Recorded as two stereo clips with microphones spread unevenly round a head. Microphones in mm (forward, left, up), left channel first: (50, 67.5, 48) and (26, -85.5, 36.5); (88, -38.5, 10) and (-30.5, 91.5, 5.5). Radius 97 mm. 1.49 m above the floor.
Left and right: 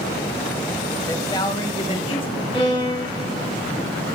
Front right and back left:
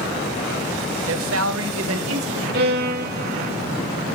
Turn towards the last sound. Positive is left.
turn(degrees=140)